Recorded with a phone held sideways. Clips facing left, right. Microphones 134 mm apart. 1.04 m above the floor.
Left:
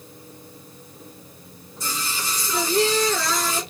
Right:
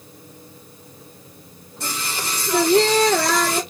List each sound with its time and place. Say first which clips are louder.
1.8 s singing: right 2 dB; 65° right (ahead or behind), 0.8 m